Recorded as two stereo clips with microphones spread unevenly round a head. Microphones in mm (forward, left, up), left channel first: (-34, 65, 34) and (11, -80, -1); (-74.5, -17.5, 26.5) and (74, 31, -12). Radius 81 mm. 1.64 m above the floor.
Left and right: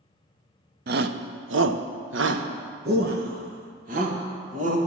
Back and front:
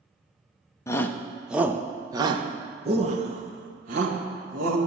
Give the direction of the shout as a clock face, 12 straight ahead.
3 o'clock.